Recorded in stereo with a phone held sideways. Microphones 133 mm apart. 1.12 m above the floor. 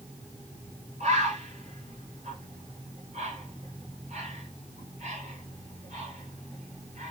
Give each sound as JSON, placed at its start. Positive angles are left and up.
{"t": 1.0, "sound": "a bird", "side_deg": -60, "distance_m": 1.4}